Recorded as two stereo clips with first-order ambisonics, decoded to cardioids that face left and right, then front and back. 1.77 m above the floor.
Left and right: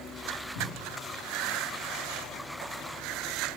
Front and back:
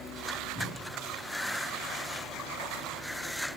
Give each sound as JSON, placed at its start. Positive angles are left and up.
{"t": 0.6, "sound": "a cupboard door", "azimuth_deg": 90, "distance_m": 9.0}